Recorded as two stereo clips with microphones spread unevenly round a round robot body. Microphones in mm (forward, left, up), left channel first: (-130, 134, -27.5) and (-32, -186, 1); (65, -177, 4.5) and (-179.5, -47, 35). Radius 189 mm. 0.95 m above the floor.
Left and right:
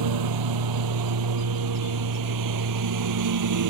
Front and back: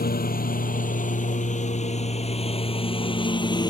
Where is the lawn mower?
85° right; by 3.7 s 105° right.